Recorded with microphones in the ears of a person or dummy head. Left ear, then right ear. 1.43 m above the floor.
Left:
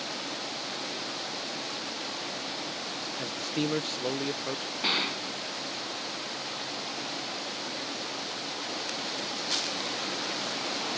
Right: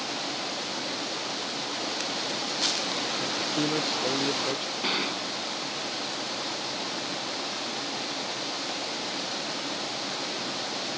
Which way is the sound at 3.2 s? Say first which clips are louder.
Right 4 dB; 55° left (ahead or behind).